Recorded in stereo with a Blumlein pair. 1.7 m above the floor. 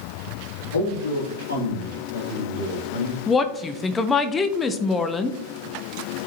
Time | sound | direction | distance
0.7 | a man speaking | 65° left | 3 m
3.3 | a woman speaking | 15° left | 0.9 m